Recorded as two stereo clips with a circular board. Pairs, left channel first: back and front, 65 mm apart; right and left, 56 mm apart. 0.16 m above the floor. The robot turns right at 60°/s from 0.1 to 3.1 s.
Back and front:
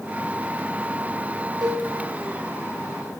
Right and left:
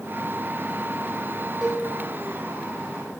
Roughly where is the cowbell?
Ahead.